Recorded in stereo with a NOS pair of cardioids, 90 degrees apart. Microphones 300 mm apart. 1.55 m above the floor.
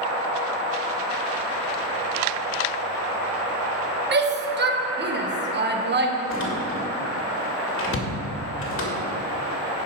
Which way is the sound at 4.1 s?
35° right.